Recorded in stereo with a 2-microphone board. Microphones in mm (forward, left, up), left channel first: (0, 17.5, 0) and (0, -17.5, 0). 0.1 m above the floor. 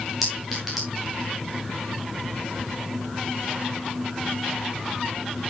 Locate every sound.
0.2 s a clink: centre (ahead or behind), 7 m